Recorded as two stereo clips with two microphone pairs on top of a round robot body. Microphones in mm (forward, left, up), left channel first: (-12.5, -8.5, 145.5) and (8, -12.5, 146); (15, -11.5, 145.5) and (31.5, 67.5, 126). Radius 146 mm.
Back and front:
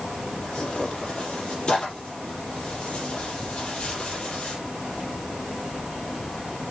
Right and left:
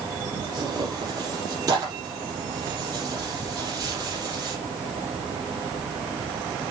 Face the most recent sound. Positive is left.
turn(degrees=125)